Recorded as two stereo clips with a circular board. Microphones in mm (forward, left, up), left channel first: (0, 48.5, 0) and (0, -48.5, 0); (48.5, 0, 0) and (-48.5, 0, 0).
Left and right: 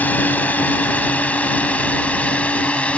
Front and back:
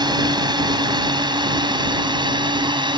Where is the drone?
160° left; by 3.0 s 165° left.